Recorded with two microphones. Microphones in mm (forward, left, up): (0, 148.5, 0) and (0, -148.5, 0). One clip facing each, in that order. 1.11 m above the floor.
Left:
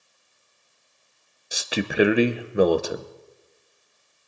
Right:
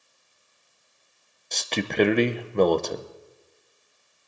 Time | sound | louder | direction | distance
1.5 | a man speaking | left 1 dB | 10° left (ahead or behind) | 0.7 m